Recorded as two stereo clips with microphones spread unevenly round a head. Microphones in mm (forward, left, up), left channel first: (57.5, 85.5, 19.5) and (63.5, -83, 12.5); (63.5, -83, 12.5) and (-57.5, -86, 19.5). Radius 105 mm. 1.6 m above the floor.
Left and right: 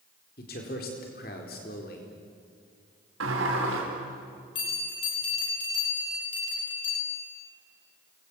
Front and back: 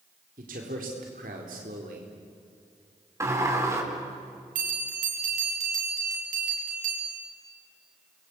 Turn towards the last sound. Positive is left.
turn(degrees=160)